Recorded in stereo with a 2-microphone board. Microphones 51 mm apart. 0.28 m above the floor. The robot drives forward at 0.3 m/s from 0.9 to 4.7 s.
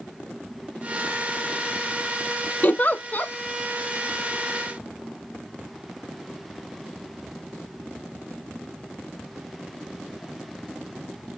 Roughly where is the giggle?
Left.